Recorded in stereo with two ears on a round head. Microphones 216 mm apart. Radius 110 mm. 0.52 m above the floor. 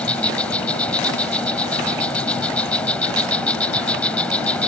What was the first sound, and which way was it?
An insect, 5° left (ahead or behind).